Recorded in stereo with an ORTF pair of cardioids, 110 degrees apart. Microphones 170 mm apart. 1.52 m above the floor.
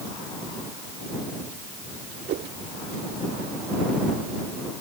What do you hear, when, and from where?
2.3 s a whoosh: 70° right